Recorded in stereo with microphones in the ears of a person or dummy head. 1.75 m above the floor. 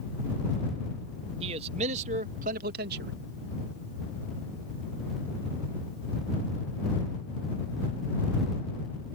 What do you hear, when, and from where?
1.4 s a man speaking: 40° right (ahead or behind); by 3.1 s 65° right (ahead or behind)